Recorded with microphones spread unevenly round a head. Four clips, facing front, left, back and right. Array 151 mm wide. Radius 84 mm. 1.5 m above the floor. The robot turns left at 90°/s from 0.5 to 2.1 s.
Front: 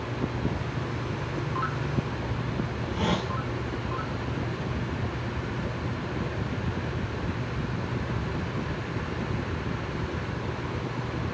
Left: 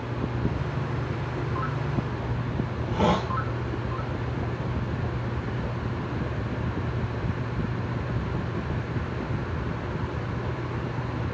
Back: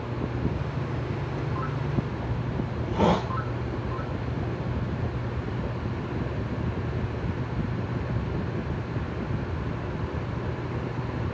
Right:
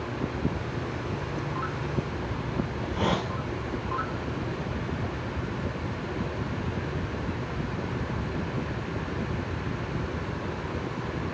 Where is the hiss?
175° left, 0.5 m.